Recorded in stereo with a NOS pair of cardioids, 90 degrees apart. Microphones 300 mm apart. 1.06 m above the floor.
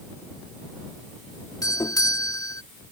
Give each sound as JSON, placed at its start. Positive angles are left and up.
{"t": 1.6, "sound": "a doorbell", "azimuth_deg": 15}